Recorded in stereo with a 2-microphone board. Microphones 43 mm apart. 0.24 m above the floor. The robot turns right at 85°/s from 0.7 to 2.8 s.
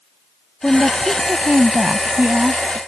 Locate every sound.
0.6 s a woman speaking: 160° left; by 2.8 s 25° right